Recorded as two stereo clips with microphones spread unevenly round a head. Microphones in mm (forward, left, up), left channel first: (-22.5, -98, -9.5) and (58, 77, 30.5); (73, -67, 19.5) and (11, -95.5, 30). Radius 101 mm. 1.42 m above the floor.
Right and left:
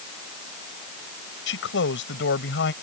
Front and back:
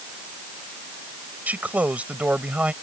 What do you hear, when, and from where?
1.5 s a man speaking: 90° right; by 2.7 s 85° right